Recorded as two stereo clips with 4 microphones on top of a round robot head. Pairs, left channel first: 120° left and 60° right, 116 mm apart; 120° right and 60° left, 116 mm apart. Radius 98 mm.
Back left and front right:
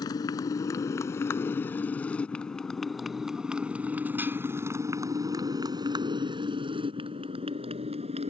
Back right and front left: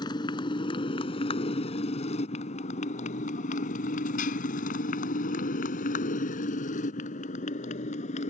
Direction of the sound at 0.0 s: Straight behind.